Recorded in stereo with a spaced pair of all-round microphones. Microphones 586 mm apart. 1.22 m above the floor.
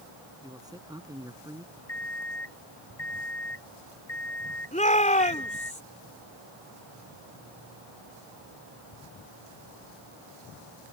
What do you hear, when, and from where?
0.4 s a man speaking: 5° right (ahead or behind)
1.9 s an alarm clock: 85° left
4.7 s a shout: 10° left (ahead or behind)